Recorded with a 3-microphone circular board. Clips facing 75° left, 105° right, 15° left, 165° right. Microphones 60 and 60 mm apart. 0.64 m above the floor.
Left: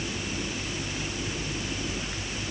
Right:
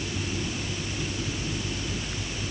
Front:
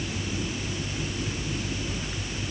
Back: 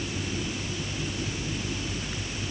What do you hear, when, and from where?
Only background noise.